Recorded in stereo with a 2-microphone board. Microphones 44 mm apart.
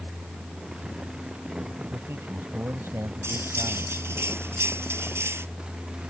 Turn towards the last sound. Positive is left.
turn(degrees=-75)  # may be behind; listen again after turning